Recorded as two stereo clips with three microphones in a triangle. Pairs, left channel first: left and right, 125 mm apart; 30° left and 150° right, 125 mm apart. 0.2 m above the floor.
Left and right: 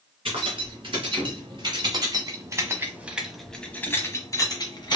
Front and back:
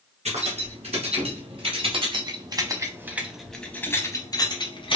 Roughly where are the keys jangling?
Behind right.